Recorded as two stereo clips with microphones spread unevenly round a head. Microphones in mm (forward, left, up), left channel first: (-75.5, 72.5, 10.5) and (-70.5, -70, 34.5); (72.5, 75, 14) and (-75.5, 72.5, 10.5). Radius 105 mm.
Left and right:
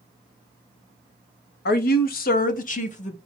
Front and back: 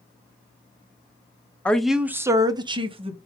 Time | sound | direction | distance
1.6 | a woman speaking | 80° left | 0.7 m